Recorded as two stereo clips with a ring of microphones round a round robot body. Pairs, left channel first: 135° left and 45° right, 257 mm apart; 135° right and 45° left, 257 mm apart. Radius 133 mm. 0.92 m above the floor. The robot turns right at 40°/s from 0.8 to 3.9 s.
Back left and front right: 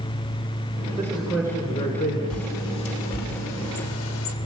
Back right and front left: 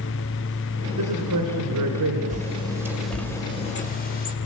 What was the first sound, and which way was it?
A man speaking, 35° left.